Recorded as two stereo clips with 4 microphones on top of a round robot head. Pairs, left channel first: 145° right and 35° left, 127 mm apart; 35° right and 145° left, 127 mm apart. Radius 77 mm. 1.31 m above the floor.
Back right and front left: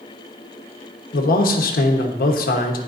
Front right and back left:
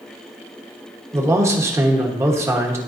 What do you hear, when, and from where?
1.1 s a man speaking: 150° right, 1.2 m